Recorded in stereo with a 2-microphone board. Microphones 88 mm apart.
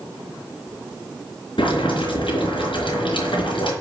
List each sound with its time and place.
1.6 s boiling: 75° left (ahead or behind), 4 m